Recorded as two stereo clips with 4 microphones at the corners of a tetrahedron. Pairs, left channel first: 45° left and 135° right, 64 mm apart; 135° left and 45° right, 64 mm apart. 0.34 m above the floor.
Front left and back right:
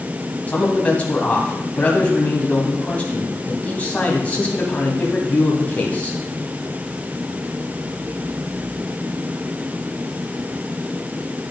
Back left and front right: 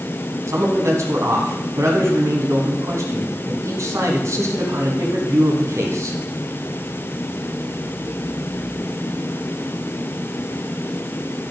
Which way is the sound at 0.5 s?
20° right.